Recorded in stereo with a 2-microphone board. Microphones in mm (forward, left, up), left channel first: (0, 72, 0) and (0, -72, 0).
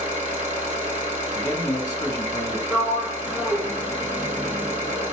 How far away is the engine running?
About 1.7 m.